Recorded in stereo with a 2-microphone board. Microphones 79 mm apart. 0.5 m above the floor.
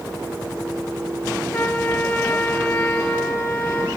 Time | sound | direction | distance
1.5 | a trumpet | 25° left (ahead or behind) | 1.0 m